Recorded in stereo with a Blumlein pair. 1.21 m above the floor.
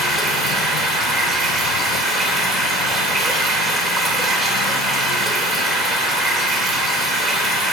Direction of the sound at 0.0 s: 20° right.